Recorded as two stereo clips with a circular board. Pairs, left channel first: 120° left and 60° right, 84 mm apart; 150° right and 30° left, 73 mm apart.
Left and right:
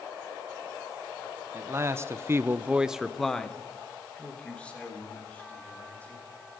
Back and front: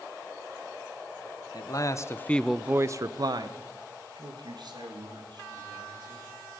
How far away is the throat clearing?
No throat clearing in this recording.